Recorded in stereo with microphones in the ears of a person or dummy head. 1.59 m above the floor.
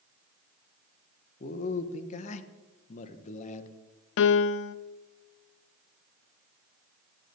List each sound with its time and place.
1.4 s a man speaking: 50° left (ahead or behind), 1.3 m
4.2 s a piano: 65° left (ahead or behind), 0.5 m